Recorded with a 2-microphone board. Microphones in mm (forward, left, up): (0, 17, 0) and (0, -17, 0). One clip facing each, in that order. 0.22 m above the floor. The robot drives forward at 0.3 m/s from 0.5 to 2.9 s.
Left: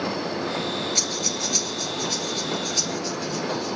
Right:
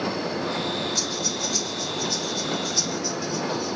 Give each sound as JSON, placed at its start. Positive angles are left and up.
{"t": 0.9, "sound": "breathing", "side_deg": 75, "distance_m": 1.3}